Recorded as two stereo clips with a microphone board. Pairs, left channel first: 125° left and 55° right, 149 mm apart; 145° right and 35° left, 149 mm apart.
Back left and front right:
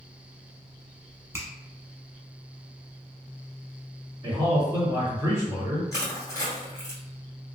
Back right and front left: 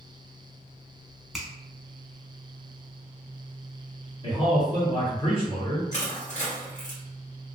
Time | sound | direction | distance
1.3 | a finger snap | 50° right | 0.8 m
4.2 | a man speaking | 115° right | 1.9 m
5.9 | crushing | 170° right | 2.0 m